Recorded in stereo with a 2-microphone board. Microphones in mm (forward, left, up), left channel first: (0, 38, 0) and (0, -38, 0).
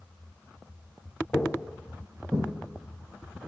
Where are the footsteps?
10° left (ahead or behind), 1.2 m; by 2.5 s 40° right (ahead or behind), 1.6 m.